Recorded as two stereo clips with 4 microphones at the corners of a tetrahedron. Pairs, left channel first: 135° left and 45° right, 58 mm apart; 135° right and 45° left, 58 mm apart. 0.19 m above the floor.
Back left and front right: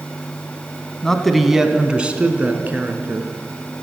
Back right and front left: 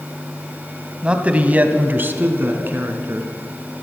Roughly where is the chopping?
I don't hear chopping.